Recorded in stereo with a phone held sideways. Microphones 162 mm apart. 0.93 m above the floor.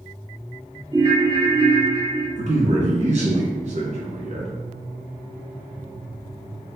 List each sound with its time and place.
0.9 s a ringtone: 30° right (ahead or behind), 1.4 m
2.4 s a man speaking: 45° right (ahead or behind), 1.3 m